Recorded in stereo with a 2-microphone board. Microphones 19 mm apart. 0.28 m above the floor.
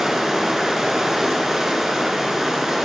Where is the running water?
25° right (ahead or behind), 2 m.